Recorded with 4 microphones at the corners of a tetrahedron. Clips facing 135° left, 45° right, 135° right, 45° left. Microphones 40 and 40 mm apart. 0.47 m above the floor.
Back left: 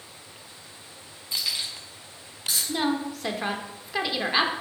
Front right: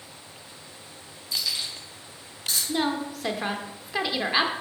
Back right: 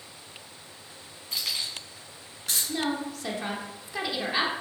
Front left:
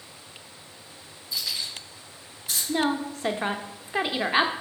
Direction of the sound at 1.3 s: 165° right.